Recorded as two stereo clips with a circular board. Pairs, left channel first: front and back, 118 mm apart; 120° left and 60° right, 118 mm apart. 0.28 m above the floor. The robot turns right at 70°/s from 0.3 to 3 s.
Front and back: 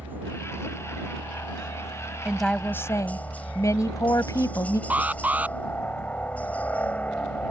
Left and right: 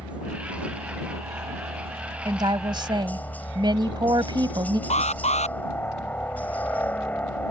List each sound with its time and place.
0.0 s a helicopter: 130° right; by 7.5 s 60° left
2.2 s a woman speaking: 100° right; by 4.8 s 45° right
4.9 s an alarm: 105° left